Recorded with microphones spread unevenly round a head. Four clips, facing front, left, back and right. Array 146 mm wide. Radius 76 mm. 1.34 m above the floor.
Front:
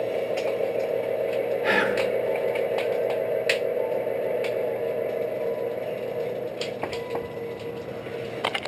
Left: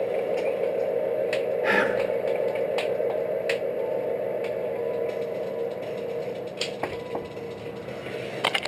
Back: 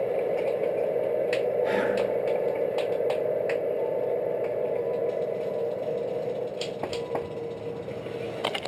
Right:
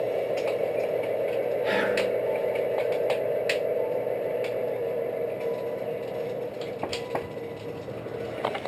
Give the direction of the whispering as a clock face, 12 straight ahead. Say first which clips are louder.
Left 3 dB, front 1 dB; 10 o'clock.